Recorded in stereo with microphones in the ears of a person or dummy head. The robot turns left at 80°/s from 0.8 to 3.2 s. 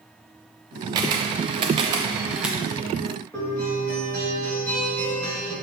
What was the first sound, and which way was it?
A camera shutter, 20° right (ahead or behind).